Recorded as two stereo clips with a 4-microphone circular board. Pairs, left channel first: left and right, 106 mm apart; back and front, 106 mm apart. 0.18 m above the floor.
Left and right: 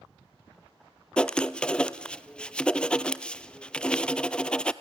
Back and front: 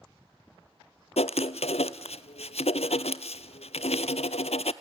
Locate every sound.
1.2 s writing: 170° left, 0.6 m